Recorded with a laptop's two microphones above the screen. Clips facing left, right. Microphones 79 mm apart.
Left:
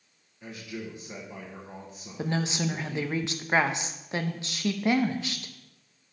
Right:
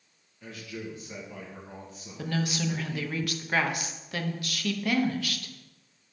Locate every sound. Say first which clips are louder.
0.4 s a man speaking: left 1 dB; 15° left (ahead or behind), 1.2 m
2.2 s a woman speaking: left 1 dB; 25° left (ahead or behind), 0.9 m